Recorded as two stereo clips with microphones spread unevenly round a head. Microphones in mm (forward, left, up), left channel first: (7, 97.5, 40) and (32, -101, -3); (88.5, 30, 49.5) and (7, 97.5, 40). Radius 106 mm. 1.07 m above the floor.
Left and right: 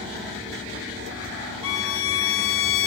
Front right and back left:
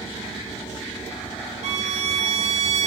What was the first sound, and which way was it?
A violin, 135° left.